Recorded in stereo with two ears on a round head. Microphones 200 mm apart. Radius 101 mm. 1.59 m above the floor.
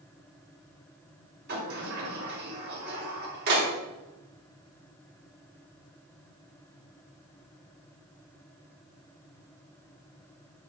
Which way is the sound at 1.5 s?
45° right (ahead or behind).